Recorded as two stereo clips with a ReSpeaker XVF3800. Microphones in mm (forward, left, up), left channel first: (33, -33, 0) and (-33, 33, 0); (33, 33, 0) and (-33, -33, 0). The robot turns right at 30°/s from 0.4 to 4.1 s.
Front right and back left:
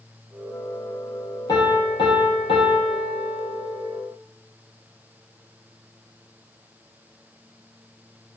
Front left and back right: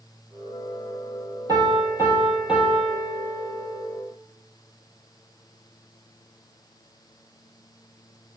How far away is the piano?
About 0.9 m.